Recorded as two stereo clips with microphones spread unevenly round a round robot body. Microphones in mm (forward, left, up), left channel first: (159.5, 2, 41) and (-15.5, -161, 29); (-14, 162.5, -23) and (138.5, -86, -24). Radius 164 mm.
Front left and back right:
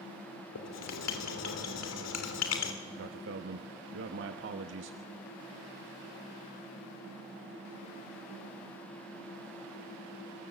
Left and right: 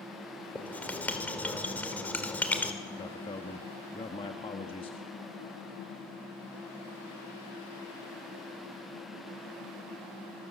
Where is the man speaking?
165° right, 1.2 m.